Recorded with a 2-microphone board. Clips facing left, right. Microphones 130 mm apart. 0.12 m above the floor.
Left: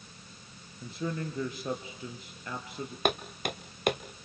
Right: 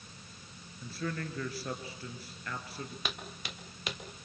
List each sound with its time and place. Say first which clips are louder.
0.8 s a man speaking: left 3 dB; 20° left (ahead or behind), 2.5 m
3.0 s footsteps: left 11 dB; 55° left (ahead or behind), 1.2 m